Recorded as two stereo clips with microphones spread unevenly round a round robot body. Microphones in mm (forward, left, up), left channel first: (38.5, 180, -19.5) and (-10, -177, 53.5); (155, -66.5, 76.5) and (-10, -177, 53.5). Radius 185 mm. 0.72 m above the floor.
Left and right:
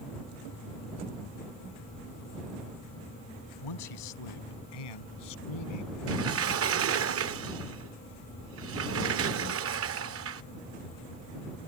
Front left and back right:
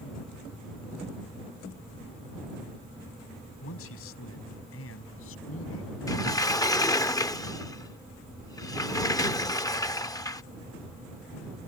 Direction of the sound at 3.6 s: 65° left.